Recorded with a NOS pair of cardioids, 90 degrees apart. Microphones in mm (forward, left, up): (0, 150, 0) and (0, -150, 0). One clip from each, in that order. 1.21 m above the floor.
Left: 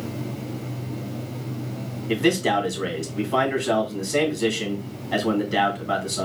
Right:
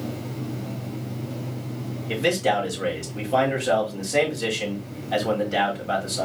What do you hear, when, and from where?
2.1 s a man speaking: straight ahead, 3 m